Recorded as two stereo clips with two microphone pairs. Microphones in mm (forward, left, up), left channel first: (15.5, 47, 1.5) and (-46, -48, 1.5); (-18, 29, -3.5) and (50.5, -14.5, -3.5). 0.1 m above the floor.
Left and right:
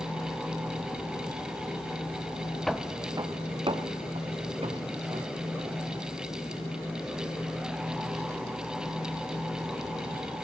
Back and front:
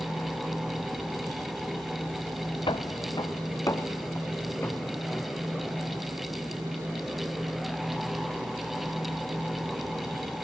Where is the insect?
5° left, 8.5 m.